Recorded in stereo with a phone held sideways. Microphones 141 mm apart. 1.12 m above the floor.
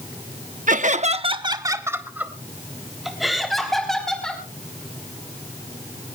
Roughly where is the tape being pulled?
I don't hear tape being pulled.